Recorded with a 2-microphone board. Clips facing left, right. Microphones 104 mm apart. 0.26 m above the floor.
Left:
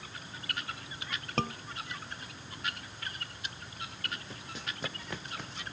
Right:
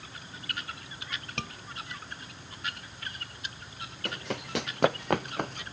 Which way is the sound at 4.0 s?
85° right.